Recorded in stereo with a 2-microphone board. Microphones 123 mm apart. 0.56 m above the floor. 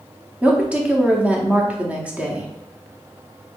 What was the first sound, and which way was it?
A woman speaking, 10° right (ahead or behind).